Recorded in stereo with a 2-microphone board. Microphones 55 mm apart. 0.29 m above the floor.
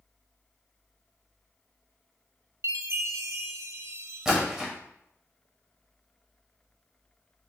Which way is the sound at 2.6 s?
60° right (ahead or behind).